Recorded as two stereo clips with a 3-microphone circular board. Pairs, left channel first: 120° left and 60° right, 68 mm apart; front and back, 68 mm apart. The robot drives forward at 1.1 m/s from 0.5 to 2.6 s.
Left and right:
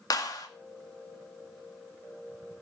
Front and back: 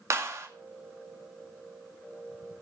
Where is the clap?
140° left, 2 m.